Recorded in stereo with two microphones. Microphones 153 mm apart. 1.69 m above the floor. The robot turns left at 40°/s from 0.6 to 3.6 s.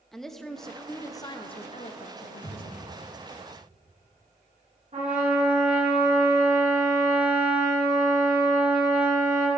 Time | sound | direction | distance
0.1 | a woman speaking | straight behind | 0.7 m
2.4 | a thud | 30° left (ahead or behind) | 1.7 m
4.9 | a trumpet | 55° right (ahead or behind) | 3.5 m